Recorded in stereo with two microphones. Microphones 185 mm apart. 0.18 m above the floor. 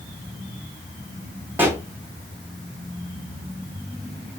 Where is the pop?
10° right (ahead or behind), 1.7 m.